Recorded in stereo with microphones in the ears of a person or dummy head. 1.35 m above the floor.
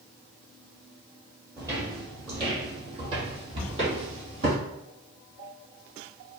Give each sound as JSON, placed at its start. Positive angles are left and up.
{"t": 1.6, "sound": "footsteps", "side_deg": -25, "distance_m": 2.0}
{"t": 3.5, "sound": "a cupboard door", "side_deg": -60, "distance_m": 1.9}